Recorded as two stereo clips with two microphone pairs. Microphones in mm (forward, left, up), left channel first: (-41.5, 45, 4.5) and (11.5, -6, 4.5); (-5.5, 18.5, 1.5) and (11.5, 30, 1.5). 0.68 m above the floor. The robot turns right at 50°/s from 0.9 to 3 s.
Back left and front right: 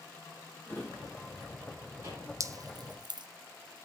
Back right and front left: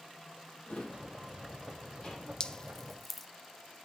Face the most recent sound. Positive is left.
turn(degrees=-65)